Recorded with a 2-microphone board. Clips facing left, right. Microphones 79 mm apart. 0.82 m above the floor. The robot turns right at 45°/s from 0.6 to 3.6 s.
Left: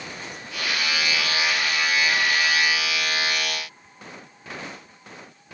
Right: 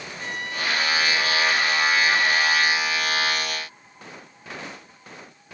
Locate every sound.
0.2 s a trumpet: 90° right; by 2.9 s 10° left